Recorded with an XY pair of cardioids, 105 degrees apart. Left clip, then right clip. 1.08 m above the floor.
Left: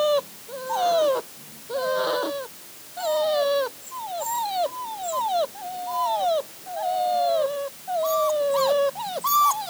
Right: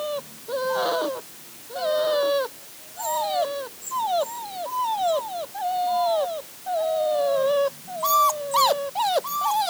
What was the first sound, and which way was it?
Only background noise.